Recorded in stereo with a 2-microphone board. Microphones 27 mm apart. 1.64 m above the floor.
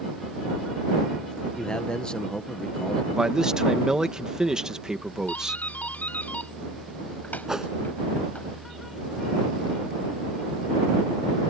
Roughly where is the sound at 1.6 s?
Left.